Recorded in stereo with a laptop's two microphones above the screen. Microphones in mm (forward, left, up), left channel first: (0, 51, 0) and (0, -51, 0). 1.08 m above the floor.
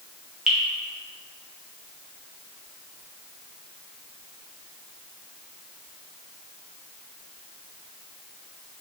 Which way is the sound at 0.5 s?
10° right (ahead or behind).